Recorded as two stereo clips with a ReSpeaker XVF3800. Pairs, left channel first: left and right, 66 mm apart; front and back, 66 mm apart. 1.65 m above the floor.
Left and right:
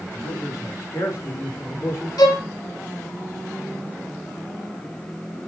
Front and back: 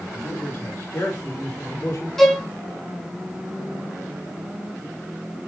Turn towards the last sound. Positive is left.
turn(degrees=85)